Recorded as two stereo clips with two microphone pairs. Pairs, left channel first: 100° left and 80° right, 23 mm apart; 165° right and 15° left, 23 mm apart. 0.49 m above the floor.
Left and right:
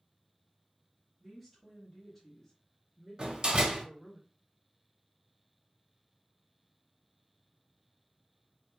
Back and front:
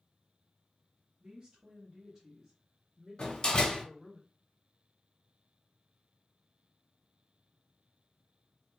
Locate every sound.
1.2 s a woman speaking: straight ahead, 1.2 m; by 4.2 s 125° left, 1.5 m
3.2 s a door slam: 125° right, 0.6 m